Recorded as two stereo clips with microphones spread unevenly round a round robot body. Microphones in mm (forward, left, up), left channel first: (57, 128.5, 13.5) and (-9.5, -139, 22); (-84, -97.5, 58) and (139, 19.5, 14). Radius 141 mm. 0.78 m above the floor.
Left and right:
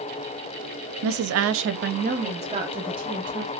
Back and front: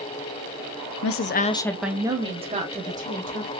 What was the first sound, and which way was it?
A woman speaking, 135° right.